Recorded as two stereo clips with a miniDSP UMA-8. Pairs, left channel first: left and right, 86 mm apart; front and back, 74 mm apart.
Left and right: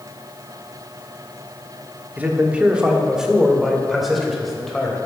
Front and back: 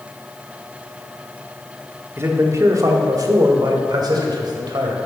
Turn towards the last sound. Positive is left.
turn(degrees=180)